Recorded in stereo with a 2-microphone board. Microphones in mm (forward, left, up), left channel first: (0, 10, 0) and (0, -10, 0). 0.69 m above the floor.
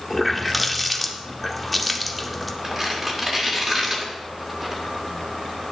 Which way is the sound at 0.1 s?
5° right (ahead or behind).